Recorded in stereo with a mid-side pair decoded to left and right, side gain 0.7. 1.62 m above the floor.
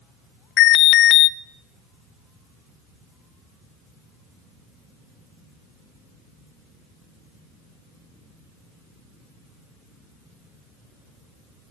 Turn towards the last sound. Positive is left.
turn(degrees=55)